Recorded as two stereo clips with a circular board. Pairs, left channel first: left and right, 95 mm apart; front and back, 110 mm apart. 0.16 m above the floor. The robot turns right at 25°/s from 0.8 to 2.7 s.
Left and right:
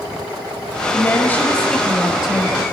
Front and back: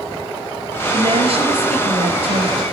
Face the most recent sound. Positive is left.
turn(degrees=-165)